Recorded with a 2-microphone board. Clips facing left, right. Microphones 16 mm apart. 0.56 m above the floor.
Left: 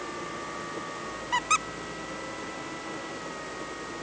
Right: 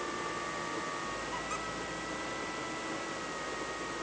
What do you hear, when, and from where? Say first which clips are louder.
1.3 s a squeak: left 11 dB; 60° left (ahead or behind)